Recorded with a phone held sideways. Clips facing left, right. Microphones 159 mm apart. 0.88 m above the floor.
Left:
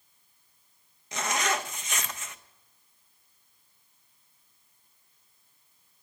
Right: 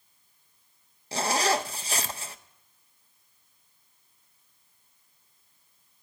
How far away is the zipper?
About 0.5 m.